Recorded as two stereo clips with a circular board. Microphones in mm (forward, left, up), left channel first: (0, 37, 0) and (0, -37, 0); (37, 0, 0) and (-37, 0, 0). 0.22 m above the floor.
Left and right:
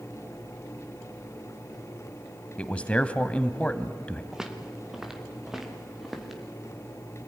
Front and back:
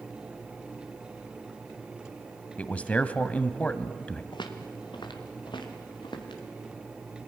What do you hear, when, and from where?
2.6 s a man speaking: 40° left, 1.0 m
4.3 s footsteps: 5° right, 3 m; by 6.4 s straight ahead, 4.5 m